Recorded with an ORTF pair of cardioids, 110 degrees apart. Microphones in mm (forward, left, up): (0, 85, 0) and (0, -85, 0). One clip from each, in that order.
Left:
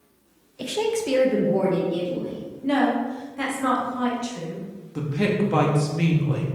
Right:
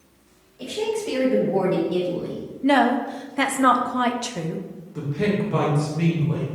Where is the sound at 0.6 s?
55° left, 1.0 m; by 2.5 s 45° right, 1.2 m.